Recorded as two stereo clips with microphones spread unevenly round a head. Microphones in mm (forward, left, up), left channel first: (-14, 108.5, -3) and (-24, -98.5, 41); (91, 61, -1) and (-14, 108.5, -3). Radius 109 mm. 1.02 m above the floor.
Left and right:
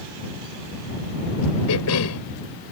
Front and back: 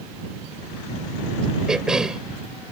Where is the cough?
70° left.